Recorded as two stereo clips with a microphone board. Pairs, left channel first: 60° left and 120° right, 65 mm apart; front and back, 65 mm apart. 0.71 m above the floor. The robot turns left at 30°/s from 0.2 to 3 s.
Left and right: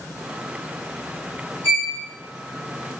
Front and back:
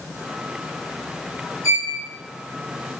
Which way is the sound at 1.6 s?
15° left.